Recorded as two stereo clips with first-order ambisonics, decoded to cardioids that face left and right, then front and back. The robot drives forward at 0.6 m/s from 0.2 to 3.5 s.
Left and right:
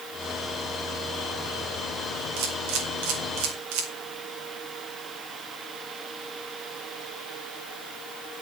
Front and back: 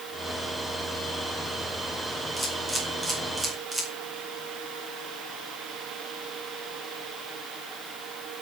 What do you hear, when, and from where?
2.4 s a camera shutter: 95° right, 4.5 m; by 3.9 s 105° right, 5 m